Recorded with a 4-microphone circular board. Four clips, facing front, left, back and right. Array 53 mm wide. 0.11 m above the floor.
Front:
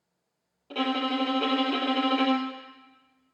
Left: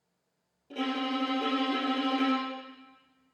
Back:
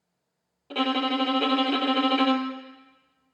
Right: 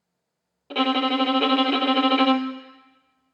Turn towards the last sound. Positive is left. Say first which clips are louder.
# right 9 dB, back 2 dB
turn(degrees=-100)